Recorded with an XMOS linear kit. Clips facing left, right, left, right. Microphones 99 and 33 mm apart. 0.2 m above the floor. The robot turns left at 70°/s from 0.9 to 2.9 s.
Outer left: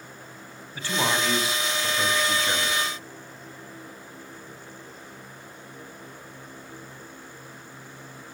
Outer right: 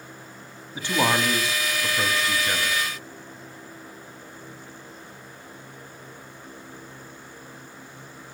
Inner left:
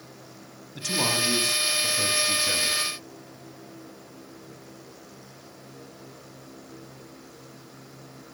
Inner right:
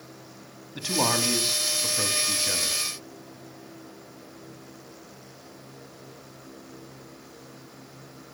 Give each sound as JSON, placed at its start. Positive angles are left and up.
{"t": 0.8, "sound": "a man speaking", "side_deg": -15, "distance_m": 1.0}